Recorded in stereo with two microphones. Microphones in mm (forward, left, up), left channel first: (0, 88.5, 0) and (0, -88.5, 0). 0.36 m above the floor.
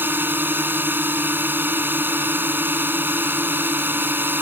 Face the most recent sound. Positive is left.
turn(degrees=-10)  # may be behind; listen again after turning